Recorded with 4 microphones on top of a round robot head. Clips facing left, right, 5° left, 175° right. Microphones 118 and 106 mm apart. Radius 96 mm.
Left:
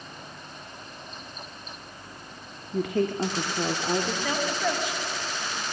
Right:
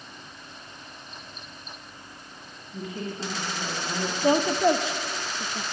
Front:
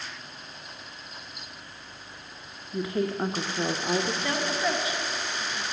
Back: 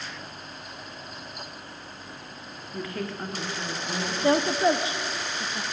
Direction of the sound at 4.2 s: 130° right.